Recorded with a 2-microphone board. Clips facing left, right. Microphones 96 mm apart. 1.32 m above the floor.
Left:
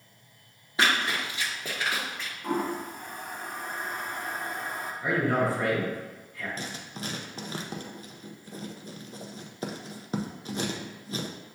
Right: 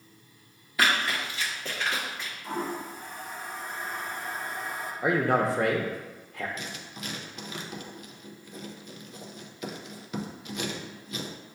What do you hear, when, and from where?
0.8 s running footsteps: 25° left (ahead or behind), 1.6 m; by 2.3 s 5° right (ahead or behind), 1.4 m
2.4 s a toilet flushing: 55° left (ahead or behind), 0.7 m
5.0 s a man speaking: 80° right, 0.8 m
6.6 s writing: 35° left (ahead or behind), 0.5 m